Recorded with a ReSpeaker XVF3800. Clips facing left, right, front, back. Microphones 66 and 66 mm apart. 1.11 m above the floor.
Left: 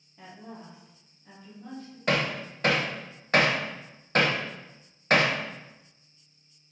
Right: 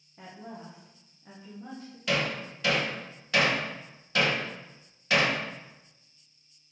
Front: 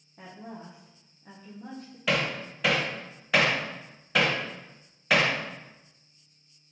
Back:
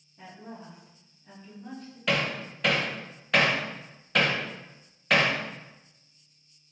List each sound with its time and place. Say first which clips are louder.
0.2 s a woman speaking: right 1 dB, front 1 dB; 25° right, 0.9 m
2.1 s hammering: left 2 dB, even; 85° left, 0.5 m